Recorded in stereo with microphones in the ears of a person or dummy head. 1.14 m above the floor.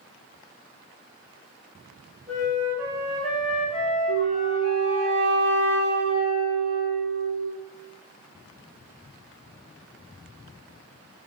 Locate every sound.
2.3 s a flute: 5° left (ahead or behind), 1.3 m
4.1 s a flute: 45° right (ahead or behind), 0.8 m